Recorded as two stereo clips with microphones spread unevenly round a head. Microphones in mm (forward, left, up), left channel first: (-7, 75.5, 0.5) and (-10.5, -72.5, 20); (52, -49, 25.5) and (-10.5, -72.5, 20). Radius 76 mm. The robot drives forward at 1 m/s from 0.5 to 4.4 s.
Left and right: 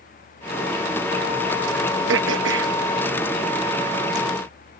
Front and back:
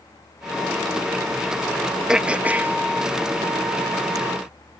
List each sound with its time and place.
2.1 s throat clearing: 80° right; by 4.2 s 135° right